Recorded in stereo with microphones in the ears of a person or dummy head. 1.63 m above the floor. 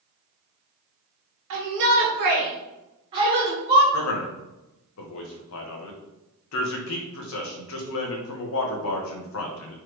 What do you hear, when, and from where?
1.5 s a shout: 65° right (ahead or behind), 2.5 m; by 3.8 s 15° right (ahead or behind), 2.5 m
3.9 s a man speaking: 65° left (ahead or behind), 1.5 m